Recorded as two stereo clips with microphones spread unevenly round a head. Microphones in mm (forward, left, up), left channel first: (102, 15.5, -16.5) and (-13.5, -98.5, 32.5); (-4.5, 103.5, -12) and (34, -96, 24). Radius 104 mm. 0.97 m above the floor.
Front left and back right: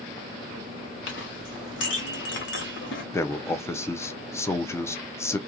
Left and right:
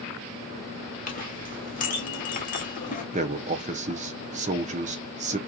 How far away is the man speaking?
About 0.6 m.